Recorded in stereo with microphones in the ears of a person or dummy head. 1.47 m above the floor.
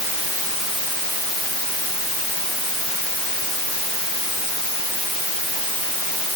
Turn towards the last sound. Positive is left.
No sound to turn to.